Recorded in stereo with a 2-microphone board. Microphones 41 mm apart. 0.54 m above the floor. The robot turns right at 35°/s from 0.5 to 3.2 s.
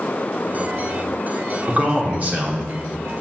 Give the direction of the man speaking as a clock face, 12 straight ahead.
4 o'clock.